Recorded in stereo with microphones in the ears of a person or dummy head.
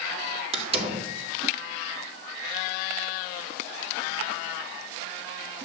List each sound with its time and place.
0.5 s a door slam: 35° right (ahead or behind), 3 m